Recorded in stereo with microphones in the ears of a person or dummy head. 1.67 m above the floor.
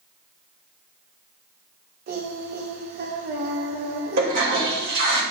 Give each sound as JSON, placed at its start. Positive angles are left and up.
{"t": 2.1, "sound": "singing", "side_deg": -50, "distance_m": 0.9}
{"t": 4.2, "sound": "a toilet flushing", "side_deg": -60, "distance_m": 2.5}